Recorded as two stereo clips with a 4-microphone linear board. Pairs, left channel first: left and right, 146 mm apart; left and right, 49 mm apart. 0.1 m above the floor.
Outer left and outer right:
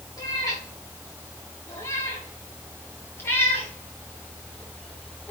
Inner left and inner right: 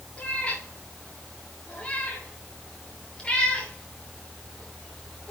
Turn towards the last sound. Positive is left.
turn(degrees=10)  # may be behind; listen again after turning